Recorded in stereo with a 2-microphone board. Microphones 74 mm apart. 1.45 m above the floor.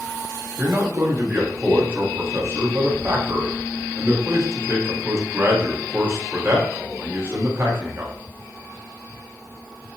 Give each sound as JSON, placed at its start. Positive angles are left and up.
{"t": 0.6, "sound": "a man speaking", "side_deg": -35, "distance_m": 1.2}